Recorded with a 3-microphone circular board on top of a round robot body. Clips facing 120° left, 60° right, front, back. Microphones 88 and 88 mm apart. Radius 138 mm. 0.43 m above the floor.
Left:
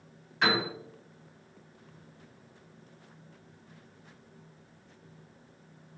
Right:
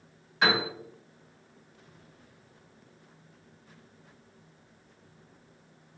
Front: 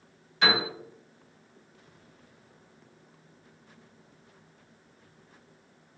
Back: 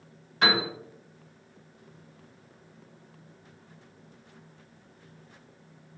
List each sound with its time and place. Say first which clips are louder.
0.4 s a piano: right 1 dB, even; 145° right, 2.5 m